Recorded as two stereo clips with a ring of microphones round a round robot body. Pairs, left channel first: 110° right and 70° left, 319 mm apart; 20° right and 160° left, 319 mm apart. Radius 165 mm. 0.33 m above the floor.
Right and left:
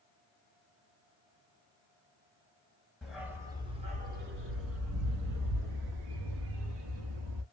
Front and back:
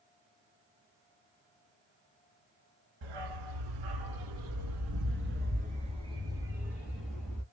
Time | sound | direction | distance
3.0 | a dog barking | 160° left | 1.4 m